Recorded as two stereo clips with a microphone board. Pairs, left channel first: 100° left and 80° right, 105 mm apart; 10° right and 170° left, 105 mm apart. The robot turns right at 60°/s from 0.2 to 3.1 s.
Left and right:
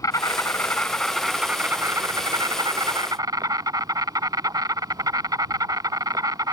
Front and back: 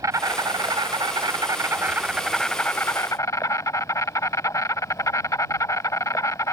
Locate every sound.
0.0 s an insect: 130° left; by 6.5 s 55° right